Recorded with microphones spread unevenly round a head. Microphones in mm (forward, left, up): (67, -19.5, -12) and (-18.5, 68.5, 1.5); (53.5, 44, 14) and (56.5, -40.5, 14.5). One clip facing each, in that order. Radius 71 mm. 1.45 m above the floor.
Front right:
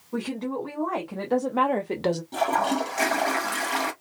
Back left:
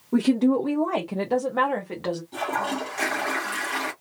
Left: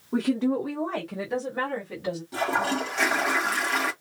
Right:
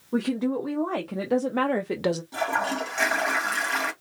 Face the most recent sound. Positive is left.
turn(degrees=5)